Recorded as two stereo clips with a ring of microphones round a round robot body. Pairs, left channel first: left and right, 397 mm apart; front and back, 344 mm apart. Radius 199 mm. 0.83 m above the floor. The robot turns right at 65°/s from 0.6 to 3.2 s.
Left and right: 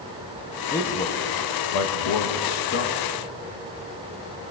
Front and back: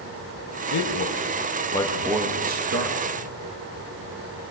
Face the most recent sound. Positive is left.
turn(degrees=170)